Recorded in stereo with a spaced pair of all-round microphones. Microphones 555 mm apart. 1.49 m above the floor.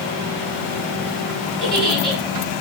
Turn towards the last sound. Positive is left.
turn(degrees=-45)  # may be behind; listen again after turning